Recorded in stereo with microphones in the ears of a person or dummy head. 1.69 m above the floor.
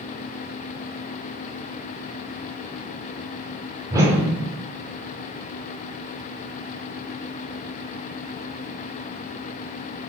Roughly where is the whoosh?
Right.